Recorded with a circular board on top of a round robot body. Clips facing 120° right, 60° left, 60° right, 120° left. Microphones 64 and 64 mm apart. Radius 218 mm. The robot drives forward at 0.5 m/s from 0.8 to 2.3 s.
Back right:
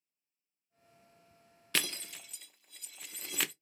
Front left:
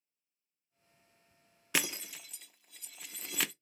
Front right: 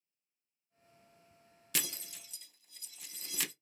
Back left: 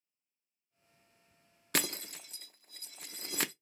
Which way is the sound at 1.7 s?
135° left.